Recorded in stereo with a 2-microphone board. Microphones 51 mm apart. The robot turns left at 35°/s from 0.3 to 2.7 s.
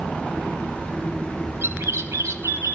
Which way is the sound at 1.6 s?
55° right.